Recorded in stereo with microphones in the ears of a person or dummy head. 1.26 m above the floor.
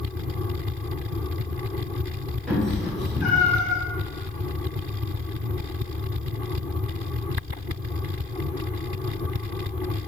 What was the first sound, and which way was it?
A cat meowing, 5° left (ahead or behind).